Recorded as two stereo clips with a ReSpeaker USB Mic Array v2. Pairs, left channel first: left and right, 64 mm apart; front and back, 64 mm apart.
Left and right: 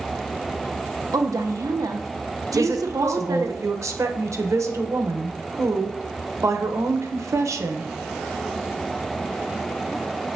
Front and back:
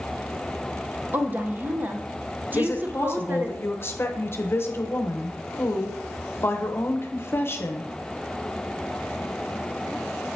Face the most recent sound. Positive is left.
turn(degrees=-50)